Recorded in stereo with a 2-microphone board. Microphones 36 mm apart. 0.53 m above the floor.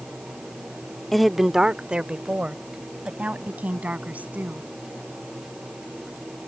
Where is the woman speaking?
5° left (ahead or behind); by 4.7 s 50° right (ahead or behind).